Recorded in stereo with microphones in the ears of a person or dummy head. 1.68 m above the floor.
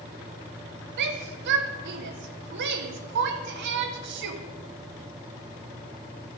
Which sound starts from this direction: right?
A shout, at 1.0 s.